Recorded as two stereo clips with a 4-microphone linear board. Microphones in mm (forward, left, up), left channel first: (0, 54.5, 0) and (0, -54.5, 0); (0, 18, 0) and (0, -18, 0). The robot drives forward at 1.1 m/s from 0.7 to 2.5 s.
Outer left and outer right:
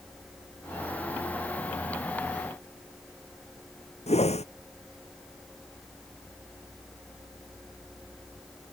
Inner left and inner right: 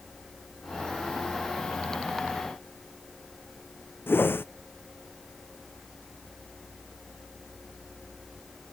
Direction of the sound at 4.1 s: 80° left.